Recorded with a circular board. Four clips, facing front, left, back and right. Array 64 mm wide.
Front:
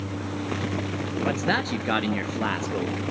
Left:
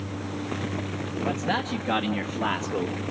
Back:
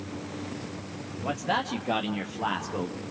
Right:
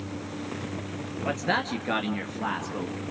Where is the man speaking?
30° right, 2.5 m; by 3.0 s 40° left, 2.5 m.